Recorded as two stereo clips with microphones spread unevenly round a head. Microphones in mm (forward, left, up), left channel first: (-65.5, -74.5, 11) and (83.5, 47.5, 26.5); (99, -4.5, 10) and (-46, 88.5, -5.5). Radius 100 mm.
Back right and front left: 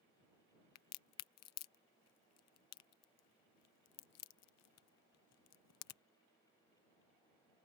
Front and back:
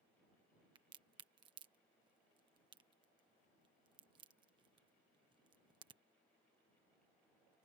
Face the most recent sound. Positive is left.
turn(degrees=-140)